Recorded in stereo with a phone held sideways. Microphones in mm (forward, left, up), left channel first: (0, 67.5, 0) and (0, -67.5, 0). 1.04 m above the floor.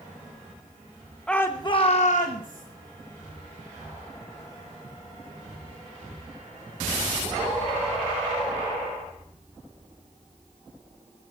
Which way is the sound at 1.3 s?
5° left (ahead or behind).